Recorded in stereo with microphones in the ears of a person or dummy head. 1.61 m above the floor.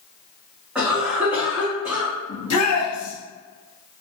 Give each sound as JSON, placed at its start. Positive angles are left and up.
{"t": 0.8, "sound": "a cough", "side_deg": -5, "distance_m": 1.5}
{"t": 2.3, "sound": "a shout", "side_deg": 85, "distance_m": 1.1}